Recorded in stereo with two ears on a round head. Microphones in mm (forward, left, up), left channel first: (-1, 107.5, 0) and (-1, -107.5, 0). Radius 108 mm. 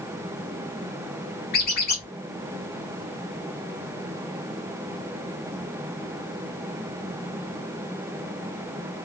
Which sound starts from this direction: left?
A squeak, at 1.5 s.